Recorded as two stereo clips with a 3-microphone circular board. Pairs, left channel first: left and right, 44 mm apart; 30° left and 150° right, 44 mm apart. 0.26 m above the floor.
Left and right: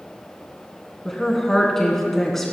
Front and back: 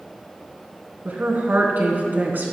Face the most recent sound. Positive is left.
turn(degrees=170)